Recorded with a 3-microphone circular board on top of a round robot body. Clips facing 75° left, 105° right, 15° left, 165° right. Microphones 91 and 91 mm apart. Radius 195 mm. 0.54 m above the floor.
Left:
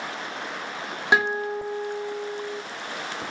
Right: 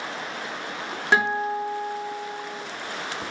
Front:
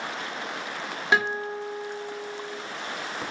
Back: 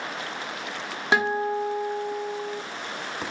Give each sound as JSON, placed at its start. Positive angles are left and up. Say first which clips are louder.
{"t": 1.1, "sound": "a guitar", "louder": "right 1 dB, back 2 dB", "azimuth_deg": 145, "distance_m": 1.4}